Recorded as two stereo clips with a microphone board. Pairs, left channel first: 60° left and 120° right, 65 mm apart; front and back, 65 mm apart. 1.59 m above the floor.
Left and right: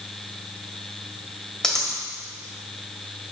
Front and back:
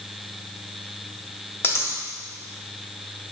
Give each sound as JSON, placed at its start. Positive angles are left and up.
{"t": 1.6, "sound": "a dropped coin", "azimuth_deg": -20, "distance_m": 1.7}